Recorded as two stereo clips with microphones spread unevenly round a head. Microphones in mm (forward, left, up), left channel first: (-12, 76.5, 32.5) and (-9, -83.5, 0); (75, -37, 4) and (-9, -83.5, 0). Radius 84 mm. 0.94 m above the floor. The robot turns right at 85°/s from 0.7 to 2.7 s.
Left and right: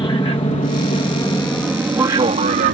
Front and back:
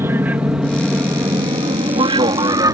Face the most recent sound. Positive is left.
turn(degrees=-110)